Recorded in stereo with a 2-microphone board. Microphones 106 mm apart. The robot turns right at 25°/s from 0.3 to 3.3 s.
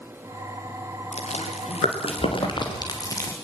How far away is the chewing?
About 4 m.